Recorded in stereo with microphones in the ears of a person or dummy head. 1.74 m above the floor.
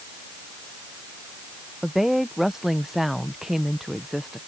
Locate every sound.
1.8 s a woman speaking: centre (ahead or behind)